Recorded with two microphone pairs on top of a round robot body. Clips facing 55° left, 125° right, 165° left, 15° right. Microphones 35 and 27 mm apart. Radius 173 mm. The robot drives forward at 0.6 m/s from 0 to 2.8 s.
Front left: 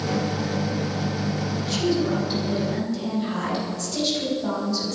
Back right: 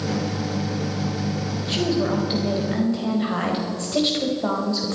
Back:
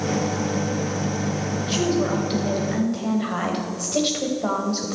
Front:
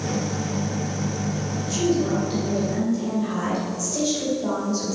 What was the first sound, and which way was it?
A woman speaking, 170° right.